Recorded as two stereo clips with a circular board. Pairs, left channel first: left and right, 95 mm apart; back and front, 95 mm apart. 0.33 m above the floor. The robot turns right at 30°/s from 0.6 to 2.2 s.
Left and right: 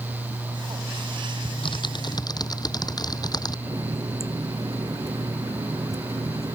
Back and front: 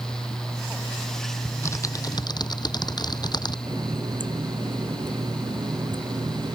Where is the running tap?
35° right.